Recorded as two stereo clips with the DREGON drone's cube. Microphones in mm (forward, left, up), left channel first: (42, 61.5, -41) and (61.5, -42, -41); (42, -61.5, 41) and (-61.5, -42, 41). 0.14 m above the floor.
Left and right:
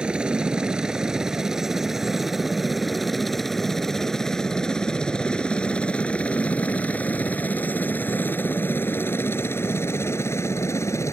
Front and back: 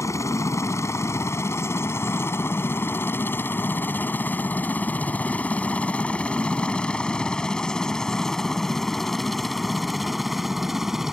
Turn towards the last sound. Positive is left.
turn(degrees=85)